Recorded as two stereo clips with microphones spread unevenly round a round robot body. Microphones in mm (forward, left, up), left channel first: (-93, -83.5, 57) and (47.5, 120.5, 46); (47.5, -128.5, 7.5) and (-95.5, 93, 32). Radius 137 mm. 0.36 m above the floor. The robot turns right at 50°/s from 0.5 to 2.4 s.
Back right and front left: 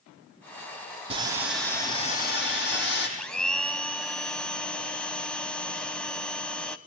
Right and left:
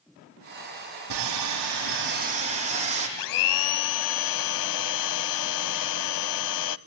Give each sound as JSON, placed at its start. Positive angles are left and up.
{"t": 1.1, "sound": "sawing", "azimuth_deg": 125, "distance_m": 8.0}
{"t": 3.2, "sound": "a blender", "azimuth_deg": -40, "distance_m": 0.6}